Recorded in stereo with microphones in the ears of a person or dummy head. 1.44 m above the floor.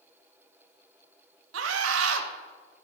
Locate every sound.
1.5 s a scream: 85° right, 1.4 m